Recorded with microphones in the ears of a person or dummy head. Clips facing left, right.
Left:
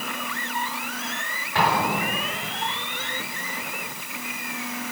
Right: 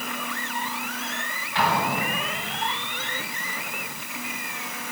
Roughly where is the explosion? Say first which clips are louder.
Left 2 dB; left.